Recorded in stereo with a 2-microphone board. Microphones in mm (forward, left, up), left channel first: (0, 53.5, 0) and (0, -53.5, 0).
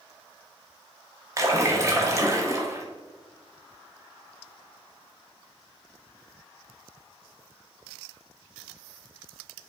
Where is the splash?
30° right (ahead or behind), 0.7 m.